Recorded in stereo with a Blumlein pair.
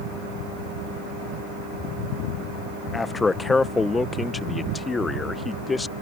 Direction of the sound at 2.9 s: 10° left.